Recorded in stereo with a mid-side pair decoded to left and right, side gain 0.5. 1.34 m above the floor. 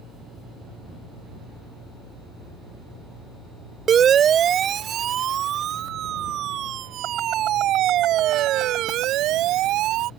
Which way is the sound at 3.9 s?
50° right.